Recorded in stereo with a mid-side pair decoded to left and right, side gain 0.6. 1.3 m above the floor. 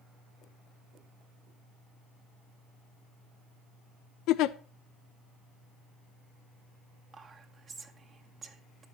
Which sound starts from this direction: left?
A giggle, at 4.3 s.